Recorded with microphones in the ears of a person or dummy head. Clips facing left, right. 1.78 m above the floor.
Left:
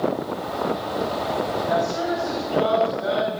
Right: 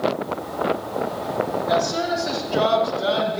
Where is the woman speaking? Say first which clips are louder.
Right 1 dB; 65° right (ahead or behind), 6 m; by 3.4 s 70° right (ahead or behind), 7 m.